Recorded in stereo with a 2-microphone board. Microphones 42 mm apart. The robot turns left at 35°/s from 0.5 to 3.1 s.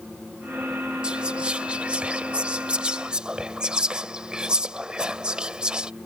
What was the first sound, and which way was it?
Whispering, 25° right (ahead or behind).